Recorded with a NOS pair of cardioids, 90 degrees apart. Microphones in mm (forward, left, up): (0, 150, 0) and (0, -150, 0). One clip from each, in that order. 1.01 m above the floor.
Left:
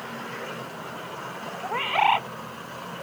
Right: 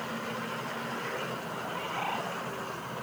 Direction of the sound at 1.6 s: 65° left.